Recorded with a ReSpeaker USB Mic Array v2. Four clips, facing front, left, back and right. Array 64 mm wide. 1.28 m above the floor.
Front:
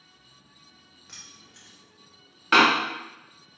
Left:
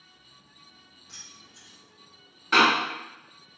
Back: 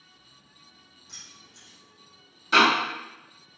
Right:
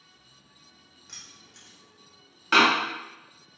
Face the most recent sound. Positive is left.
turn(degrees=-20)